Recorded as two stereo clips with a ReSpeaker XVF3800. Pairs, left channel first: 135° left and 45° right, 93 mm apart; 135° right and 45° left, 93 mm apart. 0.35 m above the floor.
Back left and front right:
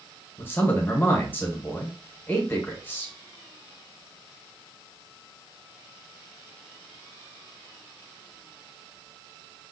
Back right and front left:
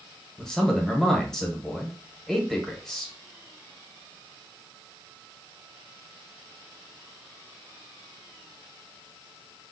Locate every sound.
0.4 s a man speaking: 150° left, 0.9 m